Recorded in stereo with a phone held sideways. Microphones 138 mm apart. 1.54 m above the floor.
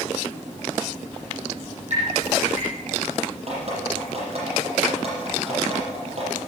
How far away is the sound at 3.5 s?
About 7.5 m.